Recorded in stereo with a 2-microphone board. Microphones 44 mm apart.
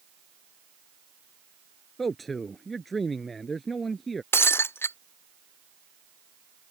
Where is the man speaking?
Centre (ahead or behind).